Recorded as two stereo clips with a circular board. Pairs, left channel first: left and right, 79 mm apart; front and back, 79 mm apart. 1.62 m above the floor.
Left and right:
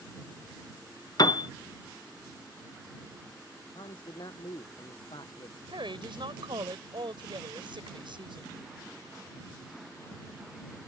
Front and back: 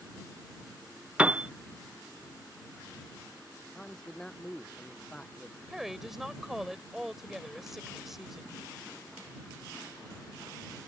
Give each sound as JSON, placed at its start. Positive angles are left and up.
{"t": 1.2, "sound": "a piano", "azimuth_deg": 105}
{"t": 3.8, "sound": "a man speaking", "azimuth_deg": 80}
{"t": 5.7, "sound": "a woman speaking", "azimuth_deg": -95}